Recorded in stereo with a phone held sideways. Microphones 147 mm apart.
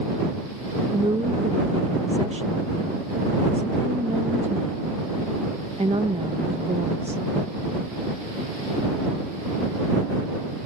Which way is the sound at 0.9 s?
45° right (ahead or behind).